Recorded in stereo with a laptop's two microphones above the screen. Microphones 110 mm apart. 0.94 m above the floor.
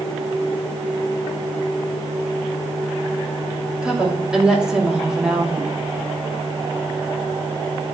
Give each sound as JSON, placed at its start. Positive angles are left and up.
{"t": 3.8, "sound": "a woman speaking", "side_deg": -5, "distance_m": 2.5}